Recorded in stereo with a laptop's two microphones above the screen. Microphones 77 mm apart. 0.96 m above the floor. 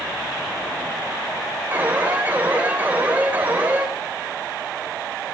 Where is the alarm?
20° right (ahead or behind), 3.5 m.